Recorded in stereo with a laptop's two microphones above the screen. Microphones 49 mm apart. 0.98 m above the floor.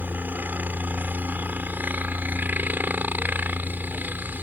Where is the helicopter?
40° right (ahead or behind).